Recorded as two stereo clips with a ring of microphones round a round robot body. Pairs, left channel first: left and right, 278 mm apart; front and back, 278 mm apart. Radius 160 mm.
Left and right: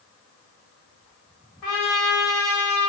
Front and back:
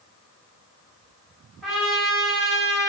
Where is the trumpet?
90° left, 1.0 m.